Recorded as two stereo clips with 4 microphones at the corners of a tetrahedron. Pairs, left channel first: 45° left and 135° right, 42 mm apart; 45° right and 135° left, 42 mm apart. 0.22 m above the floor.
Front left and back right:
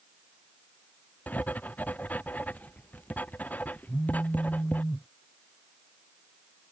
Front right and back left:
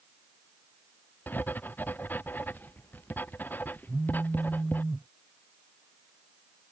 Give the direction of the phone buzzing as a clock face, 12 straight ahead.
10 o'clock.